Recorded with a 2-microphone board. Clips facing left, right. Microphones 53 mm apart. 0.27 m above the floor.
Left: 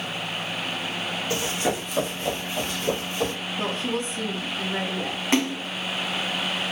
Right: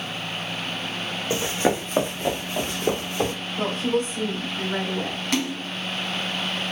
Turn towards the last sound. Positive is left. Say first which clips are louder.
# left 4 dB
turn(degrees=30)  # may be behind; listen again after turning